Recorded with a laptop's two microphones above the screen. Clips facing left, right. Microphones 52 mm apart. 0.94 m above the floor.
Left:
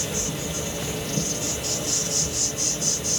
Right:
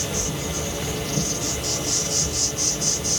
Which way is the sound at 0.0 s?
65° right (ahead or behind).